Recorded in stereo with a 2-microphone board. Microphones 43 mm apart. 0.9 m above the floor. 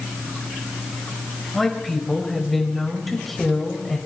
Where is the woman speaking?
5° left (ahead or behind), 4.5 m.